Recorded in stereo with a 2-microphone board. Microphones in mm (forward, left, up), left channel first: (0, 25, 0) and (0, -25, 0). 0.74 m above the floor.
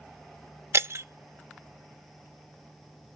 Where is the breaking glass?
60° right (ahead or behind), 0.5 m.